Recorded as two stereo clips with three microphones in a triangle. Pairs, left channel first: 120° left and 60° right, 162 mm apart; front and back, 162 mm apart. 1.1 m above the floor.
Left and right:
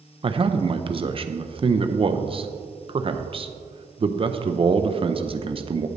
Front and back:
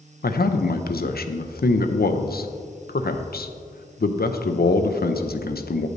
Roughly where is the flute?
No flute in this recording.